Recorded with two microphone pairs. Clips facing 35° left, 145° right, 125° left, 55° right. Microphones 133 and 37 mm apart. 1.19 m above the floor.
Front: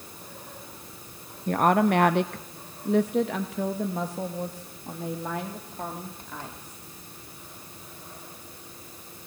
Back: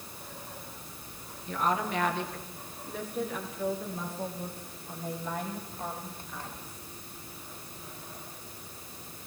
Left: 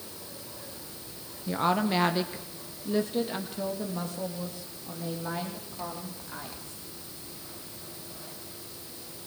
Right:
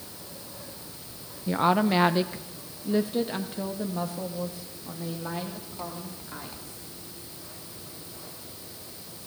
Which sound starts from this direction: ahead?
A woman speaking, at 1.5 s.